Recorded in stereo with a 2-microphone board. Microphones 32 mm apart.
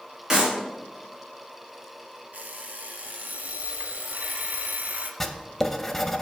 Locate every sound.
0.3 s a clap: 15° right (ahead or behind), 2.5 m
2.3 s an alarm clock: 60° right (ahead or behind), 0.8 m
5.2 s writing: 10° left (ahead or behind), 0.6 m